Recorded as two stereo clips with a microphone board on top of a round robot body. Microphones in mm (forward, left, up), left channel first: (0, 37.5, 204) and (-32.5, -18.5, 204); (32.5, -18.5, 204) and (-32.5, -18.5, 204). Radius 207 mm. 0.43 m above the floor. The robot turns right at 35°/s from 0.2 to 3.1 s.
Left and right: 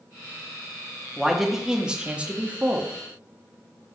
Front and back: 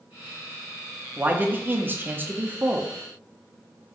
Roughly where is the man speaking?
Behind left.